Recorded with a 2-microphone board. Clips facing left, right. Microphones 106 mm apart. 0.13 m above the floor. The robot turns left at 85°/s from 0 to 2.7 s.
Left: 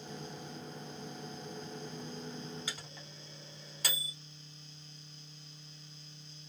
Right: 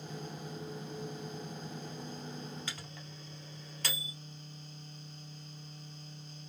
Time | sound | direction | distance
2.7 | a microwave | 15° left (ahead or behind) | 2 m